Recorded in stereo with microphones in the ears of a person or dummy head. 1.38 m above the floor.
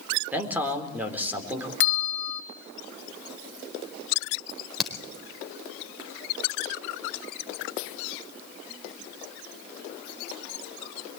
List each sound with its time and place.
0.3 s a man speaking: 15° right (ahead or behind), 4 m
1.8 s a bell: 70° left (ahead or behind), 2 m
4.5 s a crack: 5° right (ahead or behind), 4 m